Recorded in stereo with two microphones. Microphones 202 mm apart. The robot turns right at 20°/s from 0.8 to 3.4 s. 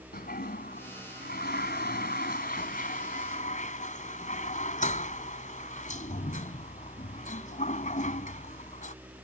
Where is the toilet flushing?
50° left (ahead or behind); by 8.9 s 40° left (ahead or behind).